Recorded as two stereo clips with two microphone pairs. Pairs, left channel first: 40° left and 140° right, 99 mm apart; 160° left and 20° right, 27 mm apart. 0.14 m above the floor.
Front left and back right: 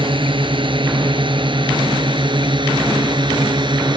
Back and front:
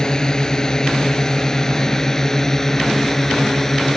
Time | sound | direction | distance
0.0 | a drone | 140° right | ?